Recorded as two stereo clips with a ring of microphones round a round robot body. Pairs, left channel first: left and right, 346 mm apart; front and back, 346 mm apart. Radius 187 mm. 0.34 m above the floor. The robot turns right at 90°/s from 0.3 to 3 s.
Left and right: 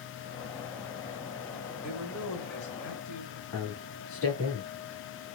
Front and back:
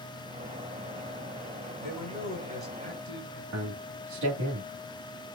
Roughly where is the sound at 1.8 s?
Ahead.